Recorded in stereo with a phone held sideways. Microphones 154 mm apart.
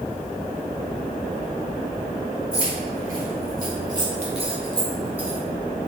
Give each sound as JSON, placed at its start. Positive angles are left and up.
{"t": 2.5, "sound": "keys jangling", "side_deg": -65, "distance_m": 1.5}